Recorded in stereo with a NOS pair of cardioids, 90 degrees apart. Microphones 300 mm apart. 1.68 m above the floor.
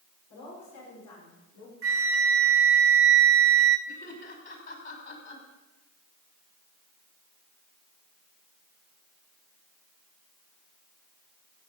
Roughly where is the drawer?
No drawer in this recording.